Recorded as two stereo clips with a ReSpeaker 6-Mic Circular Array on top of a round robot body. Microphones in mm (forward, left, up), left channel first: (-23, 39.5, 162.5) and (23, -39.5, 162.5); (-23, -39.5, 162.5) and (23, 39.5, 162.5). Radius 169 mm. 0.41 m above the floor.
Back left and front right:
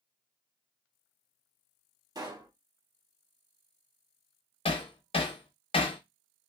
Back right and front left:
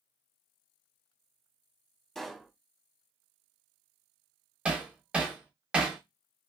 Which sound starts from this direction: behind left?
Hammering, at 4.7 s.